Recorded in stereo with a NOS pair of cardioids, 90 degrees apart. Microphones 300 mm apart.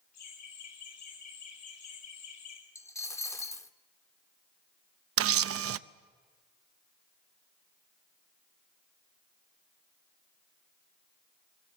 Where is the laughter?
65° left, 8 m.